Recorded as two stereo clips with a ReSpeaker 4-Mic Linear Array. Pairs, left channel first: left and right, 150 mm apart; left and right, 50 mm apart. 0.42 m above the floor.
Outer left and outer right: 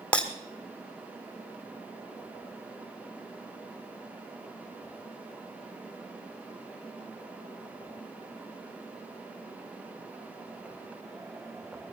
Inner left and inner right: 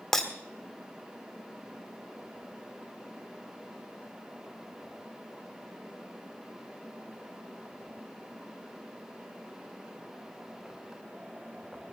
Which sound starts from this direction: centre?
Breaking glass, at 0.1 s.